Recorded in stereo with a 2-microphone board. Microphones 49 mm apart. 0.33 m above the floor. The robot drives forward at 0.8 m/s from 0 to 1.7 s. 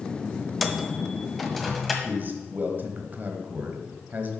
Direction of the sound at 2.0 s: 40° right (ahead or behind).